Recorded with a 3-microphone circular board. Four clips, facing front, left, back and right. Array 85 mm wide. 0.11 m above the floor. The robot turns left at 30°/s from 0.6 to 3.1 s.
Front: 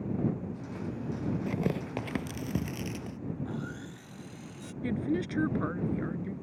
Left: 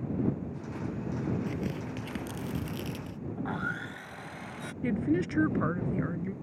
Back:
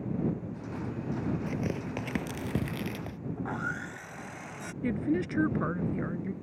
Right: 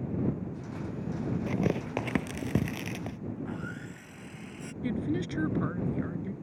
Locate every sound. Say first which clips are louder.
1.5 s tearing paper: right 5 dB, front 1 dB; 65° right; by 3.2 s 115° right
3.4 s sawing: left 4 dB, back 3 dB; 135° left
4.8 s a woman speaking: left 3 dB, back 2 dB; 120° left